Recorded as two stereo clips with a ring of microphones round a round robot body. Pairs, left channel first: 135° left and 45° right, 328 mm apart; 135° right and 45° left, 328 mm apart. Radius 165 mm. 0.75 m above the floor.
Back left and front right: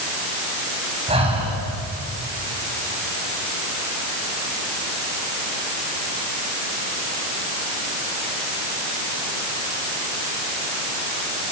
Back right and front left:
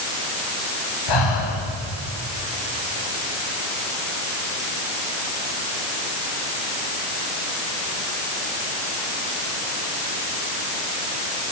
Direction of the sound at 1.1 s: 120° right.